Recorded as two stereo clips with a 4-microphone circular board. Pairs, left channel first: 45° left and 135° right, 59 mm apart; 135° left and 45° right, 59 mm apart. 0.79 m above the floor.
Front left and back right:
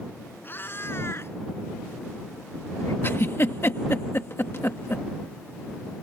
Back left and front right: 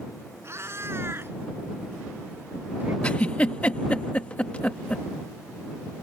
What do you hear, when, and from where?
0.4 s a cat meowing: 10° right; by 2.9 s 10° left
3.0 s a giggle: 75° left